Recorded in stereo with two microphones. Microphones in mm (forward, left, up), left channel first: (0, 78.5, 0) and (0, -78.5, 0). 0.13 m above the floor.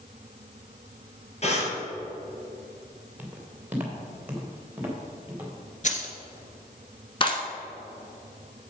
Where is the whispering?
I don't hear whispering.